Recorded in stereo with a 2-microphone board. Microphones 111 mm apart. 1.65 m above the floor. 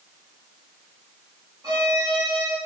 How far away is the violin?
About 3.5 m.